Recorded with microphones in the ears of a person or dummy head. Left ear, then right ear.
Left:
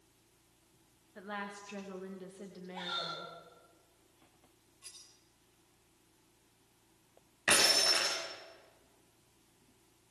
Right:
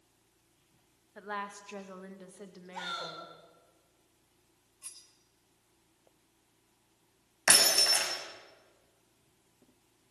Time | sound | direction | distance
1.1 | a woman speaking | 30° right (ahead or behind) | 2.5 m
2.7 | a shout | 60° right (ahead or behind) | 6 m
4.8 | cutlery clinking | 25° right (ahead or behind) | 4.5 m
7.5 | breaking glass | 50° right (ahead or behind) | 6 m